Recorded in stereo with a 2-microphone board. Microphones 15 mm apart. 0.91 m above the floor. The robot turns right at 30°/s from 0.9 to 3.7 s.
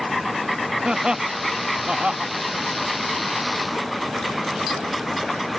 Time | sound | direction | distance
0.8 | laughter | 60° right (ahead or behind) | ?